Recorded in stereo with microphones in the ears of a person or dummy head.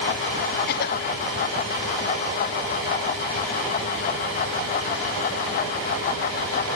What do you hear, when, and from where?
0.7 s a cough: 55° left (ahead or behind), 1.0 m